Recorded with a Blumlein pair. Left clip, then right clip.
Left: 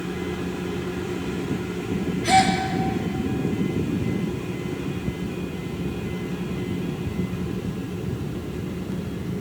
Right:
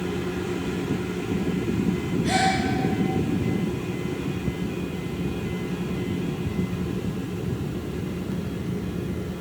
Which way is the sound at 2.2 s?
50° left.